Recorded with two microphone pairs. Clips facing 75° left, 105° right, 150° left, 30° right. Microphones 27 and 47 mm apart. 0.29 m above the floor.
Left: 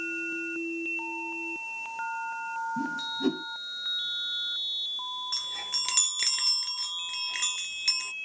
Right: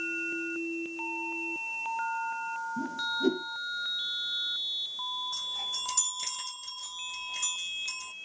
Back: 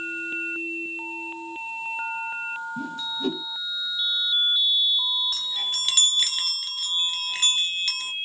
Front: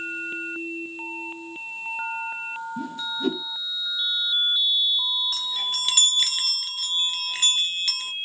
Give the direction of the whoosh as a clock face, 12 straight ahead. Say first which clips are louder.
Even, front 1 dB; 10 o'clock.